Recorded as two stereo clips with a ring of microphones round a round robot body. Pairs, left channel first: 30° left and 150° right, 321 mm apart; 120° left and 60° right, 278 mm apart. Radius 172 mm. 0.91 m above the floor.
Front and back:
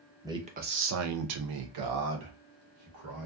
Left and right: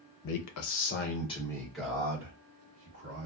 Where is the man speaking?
130° left, 0.6 m; by 3.3 s 125° right, 1.3 m.